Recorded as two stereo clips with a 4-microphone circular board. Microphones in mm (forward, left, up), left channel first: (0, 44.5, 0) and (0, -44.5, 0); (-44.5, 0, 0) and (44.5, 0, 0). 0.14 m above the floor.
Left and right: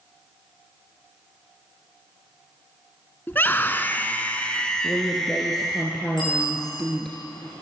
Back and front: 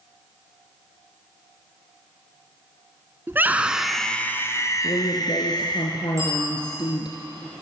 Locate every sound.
3.3 s a scream: 40° left, 1.4 m; by 5.8 s straight behind, 2 m
4.8 s a woman speaking: 175° left, 2 m
6.2 s a bicycle bell: 55° left, 8 m